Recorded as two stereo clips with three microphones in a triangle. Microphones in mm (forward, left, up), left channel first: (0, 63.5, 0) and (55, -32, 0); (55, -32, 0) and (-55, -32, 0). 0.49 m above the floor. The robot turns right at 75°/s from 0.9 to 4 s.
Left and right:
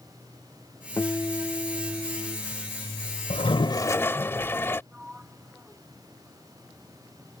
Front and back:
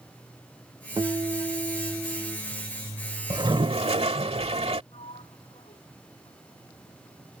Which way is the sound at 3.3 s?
135° left.